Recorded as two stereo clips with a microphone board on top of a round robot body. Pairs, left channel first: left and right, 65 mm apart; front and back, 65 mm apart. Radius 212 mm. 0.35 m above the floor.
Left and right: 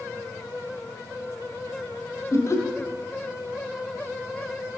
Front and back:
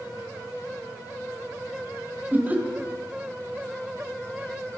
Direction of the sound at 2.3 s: 120° left.